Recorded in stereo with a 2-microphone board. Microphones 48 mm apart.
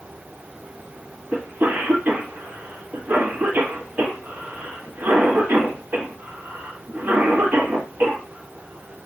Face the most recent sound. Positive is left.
turn(degrees=-35)  # may be behind; listen again after turning